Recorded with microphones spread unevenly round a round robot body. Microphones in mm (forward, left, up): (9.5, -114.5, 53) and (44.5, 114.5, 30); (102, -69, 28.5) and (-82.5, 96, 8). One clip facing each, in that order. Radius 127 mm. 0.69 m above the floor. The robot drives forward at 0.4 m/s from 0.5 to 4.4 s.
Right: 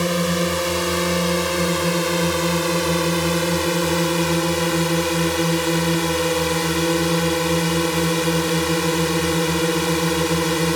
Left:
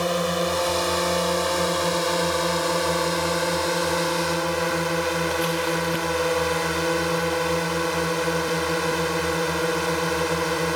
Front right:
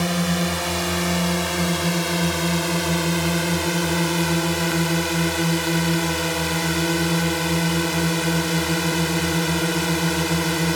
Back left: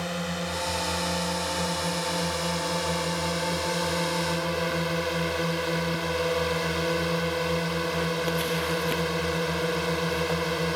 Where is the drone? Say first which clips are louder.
Right 3 dB, front right 9 dB; 45° right; by 10.8 s 60° right.